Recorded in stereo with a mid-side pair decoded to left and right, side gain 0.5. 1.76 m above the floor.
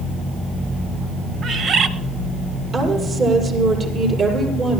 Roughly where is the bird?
Ahead right.